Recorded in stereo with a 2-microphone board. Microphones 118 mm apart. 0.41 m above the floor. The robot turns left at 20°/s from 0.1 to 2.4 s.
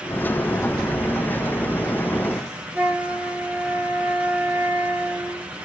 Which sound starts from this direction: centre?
A flute, at 2.7 s.